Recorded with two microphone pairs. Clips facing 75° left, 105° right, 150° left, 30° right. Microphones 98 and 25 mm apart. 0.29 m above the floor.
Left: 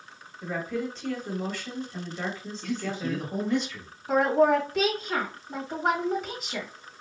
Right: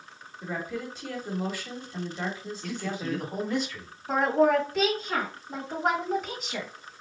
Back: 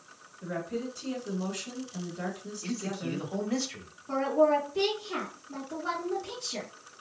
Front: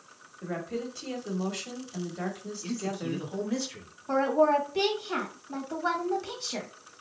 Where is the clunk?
No clunk in this recording.